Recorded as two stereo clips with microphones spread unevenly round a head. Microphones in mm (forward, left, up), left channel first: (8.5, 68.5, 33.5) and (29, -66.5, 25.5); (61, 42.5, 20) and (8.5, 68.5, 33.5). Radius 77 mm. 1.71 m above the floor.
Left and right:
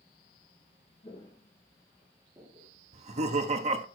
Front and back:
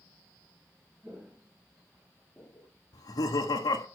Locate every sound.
1.0 s footsteps: 135° left, 2 m; by 2.7 s 75° right, 1.9 m
2.9 s laughter: 40° right, 1.3 m